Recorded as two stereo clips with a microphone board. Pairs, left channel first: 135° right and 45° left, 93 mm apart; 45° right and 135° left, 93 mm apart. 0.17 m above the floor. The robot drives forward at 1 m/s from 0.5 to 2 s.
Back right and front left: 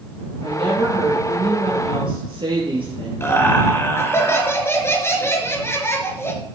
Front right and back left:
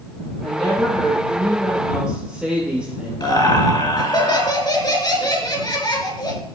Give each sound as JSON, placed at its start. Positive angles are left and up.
{"t": 0.4, "sound": "a woman speaking", "azimuth_deg": 35, "distance_m": 4.0}
{"t": 3.2, "sound": "laughter", "azimuth_deg": -80, "distance_m": 2.5}